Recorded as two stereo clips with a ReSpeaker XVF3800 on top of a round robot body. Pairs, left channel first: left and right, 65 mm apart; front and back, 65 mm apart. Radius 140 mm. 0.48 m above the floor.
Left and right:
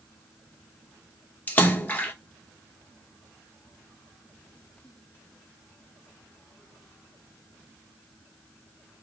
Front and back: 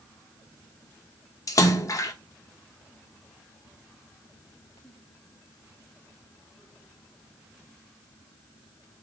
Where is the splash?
30° left, 1.3 m.